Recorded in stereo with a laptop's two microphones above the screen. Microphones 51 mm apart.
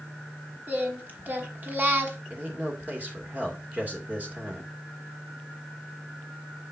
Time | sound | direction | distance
0.7 | singing | 40° right (ahead or behind) | 1.1 m
2.3 | a man speaking | 35° right (ahead or behind) | 2 m